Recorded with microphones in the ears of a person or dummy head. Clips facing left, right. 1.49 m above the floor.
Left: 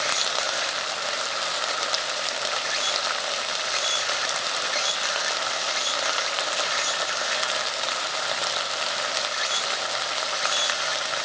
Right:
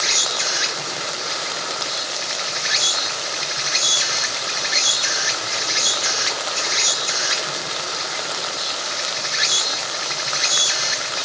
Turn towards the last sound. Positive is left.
turn(degrees=-70)  # may be behind; listen again after turning